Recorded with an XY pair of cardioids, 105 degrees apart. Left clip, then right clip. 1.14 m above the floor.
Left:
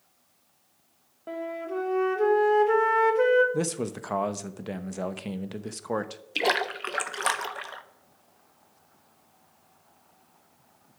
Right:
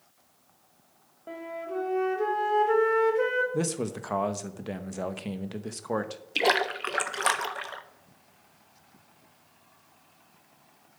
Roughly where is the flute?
Ahead left.